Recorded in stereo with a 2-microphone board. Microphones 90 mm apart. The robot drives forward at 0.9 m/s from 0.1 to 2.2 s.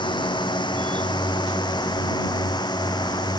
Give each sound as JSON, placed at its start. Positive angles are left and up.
{"t": 0.0, "sound": "a drone", "side_deg": 60}